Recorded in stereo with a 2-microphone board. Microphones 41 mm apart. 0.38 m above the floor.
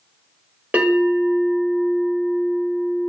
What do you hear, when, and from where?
0.7 s a bell: 30° right (ahead or behind), 1.4 m